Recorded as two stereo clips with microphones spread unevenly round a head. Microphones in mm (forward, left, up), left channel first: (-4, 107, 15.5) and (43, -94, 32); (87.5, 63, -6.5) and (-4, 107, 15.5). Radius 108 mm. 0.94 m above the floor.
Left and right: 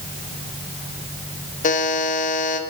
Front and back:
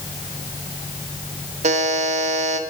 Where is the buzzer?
160° left, 0.9 m.